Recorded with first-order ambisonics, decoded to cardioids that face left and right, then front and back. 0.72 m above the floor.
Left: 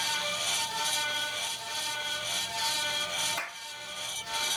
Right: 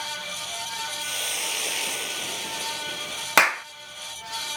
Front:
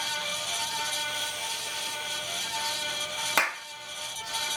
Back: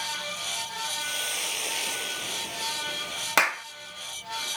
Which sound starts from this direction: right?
A clap, at 3.4 s.